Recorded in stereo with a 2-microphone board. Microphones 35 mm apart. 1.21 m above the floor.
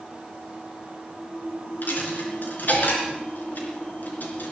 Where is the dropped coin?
65° left (ahead or behind), 4.5 m.